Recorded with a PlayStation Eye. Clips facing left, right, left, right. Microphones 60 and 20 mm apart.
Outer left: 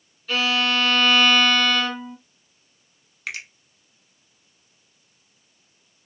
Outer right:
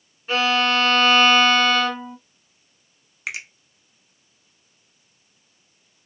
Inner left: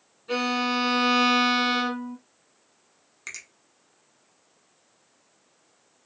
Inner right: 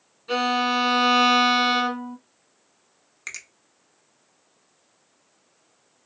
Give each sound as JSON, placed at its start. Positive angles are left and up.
{"t": 0.3, "sound": "a violin", "side_deg": -30, "distance_m": 1.8}
{"t": 3.3, "sound": "a finger snap", "side_deg": -15, "distance_m": 1.2}